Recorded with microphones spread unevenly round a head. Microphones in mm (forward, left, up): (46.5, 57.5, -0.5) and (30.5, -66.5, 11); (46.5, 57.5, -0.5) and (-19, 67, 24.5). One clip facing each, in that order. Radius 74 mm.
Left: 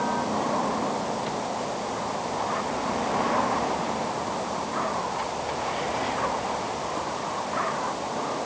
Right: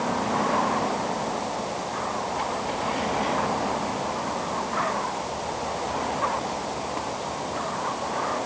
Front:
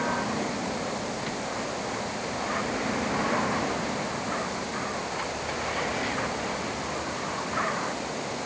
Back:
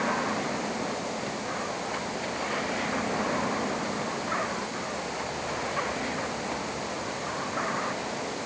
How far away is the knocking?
No knocking in this recording.